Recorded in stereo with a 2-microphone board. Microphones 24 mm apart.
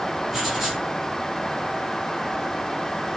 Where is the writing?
5° right (ahead or behind), 2.5 m.